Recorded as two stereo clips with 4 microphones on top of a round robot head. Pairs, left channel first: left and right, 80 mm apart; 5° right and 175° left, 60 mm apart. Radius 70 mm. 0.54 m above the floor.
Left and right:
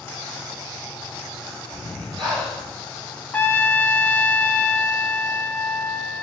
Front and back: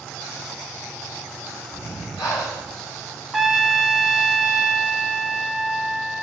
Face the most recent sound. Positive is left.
turn(degrees=100)